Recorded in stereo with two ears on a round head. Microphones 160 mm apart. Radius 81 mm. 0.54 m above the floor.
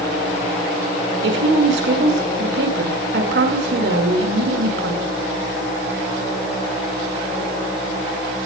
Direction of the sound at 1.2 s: 70° right (ahead or behind).